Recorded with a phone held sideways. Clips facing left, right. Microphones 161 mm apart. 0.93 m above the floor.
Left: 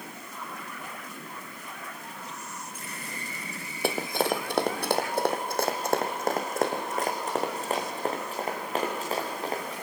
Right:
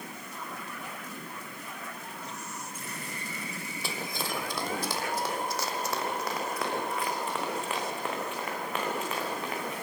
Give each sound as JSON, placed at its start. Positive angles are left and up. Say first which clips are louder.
{"t": 3.8, "sound": "running footsteps", "louder": "left 10 dB", "side_deg": 60, "distance_m": 1.8}